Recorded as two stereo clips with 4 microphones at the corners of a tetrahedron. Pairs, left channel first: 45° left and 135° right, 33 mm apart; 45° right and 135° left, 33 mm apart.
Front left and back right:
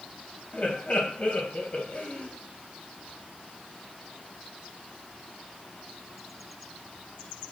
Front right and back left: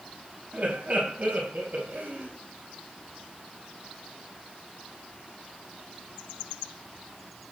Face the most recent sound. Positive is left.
turn(degrees=100)